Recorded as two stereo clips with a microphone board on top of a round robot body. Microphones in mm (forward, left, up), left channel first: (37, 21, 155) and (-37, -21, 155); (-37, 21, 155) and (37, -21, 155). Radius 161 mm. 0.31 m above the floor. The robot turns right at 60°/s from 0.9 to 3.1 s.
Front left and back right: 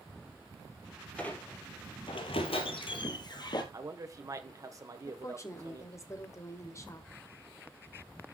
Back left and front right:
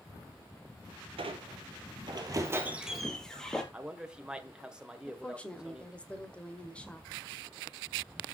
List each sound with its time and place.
1.2 s a squeak: 50° right, 2.0 m; by 3.6 s 65° left, 2.0 m
3.7 s a man speaking: 110° right, 1.9 m
5.1 s a woman speaking: 75° left, 2.0 m